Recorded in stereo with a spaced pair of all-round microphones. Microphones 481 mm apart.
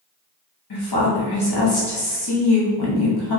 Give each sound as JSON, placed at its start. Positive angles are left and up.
{"t": 0.7, "sound": "a woman speaking", "side_deg": 55, "distance_m": 0.9}